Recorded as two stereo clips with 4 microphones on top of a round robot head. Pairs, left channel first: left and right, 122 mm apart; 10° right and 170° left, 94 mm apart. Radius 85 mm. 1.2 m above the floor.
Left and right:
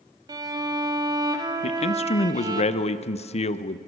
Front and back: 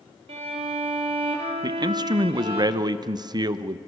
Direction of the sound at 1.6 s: 125° left.